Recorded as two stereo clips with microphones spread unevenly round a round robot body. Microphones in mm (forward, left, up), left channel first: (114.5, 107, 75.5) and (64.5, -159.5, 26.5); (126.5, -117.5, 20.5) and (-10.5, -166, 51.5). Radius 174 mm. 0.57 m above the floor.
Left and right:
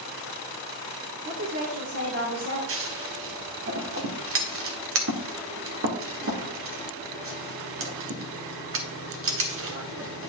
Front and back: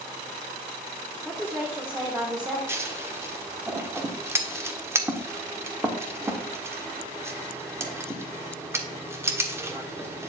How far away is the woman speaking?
About 1.8 m.